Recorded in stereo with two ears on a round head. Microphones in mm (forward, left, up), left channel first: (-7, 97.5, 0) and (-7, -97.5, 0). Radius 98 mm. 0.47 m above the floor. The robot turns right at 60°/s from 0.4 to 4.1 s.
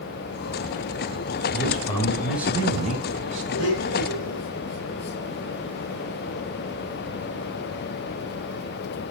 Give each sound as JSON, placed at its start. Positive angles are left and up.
{"t": 1.5, "sound": "a man speaking", "azimuth_deg": 135, "distance_m": 4.0}
{"t": 3.5, "sound": "a blender", "azimuth_deg": 60, "distance_m": 7.0}